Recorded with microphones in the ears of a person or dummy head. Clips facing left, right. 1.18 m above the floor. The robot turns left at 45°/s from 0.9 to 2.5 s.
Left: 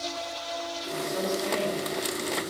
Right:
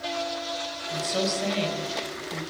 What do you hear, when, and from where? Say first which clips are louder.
0.9 s a woman speaking: right 2 dB; 35° right, 6.5 m; by 2.4 s 105° right, 6.5 m